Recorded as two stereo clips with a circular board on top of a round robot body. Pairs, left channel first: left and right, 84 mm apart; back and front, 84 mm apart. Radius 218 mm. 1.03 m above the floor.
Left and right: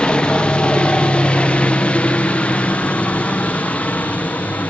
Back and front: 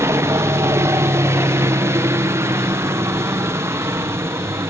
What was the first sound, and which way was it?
A helicopter, 20° left.